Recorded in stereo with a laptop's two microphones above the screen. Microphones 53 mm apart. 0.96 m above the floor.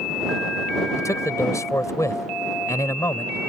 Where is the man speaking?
75° left (ahead or behind).